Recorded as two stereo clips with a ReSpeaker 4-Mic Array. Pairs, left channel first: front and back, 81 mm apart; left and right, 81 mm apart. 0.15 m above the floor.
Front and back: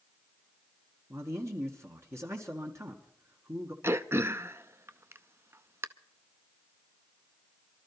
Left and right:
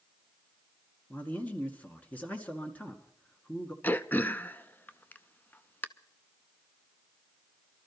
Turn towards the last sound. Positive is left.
turn(degrees=145)